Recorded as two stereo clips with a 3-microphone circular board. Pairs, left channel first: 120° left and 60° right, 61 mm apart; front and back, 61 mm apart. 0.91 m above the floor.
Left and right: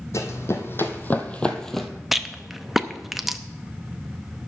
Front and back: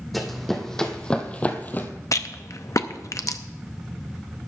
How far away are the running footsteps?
About 1.8 m.